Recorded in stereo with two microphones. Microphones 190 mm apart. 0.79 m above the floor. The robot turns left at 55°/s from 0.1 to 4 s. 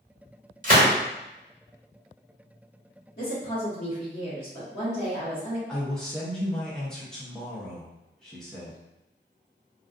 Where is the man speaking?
5° left (ahead or behind), 0.6 m.